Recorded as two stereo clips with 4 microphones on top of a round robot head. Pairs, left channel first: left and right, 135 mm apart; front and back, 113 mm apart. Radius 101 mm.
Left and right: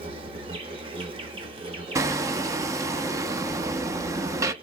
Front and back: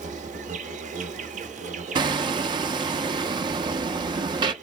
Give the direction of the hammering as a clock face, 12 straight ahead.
5 o'clock.